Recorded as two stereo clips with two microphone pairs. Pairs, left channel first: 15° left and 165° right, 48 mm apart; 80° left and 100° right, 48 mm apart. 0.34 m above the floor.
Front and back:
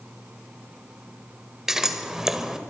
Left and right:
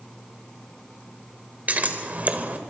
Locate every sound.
1.7 s scissors: 90° right, 1.3 m